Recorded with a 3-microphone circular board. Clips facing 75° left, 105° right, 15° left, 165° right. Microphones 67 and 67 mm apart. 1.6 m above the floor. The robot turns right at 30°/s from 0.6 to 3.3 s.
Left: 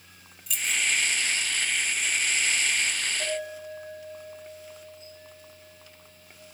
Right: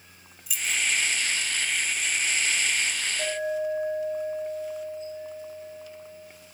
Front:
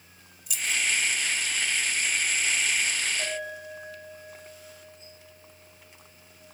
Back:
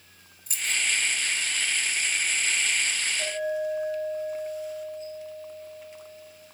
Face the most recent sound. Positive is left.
turn(degrees=-60)